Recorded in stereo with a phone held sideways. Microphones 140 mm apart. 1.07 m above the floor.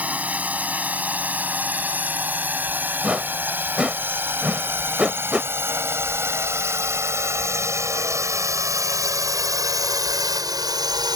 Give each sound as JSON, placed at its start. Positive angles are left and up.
{"t": 0.0, "sound": "a drone", "side_deg": -10}
{"t": 3.0, "sound": "a whoosh", "side_deg": -5}